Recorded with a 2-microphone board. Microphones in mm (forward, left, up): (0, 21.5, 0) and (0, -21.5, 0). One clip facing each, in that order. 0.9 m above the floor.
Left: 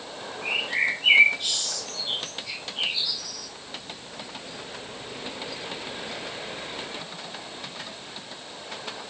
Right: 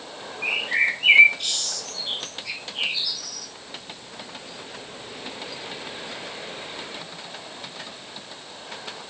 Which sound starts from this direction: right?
A bird, at 0.4 s.